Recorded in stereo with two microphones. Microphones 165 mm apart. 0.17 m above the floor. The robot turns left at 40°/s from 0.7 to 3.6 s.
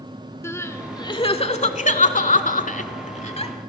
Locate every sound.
0.4 s crying: 15° left (ahead or behind), 0.7 m; by 3.5 s 35° left (ahead or behind), 0.7 m